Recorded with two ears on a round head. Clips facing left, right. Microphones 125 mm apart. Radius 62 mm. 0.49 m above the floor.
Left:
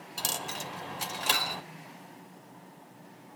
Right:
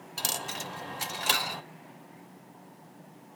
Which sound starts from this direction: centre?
A dropped coin, at 0.2 s.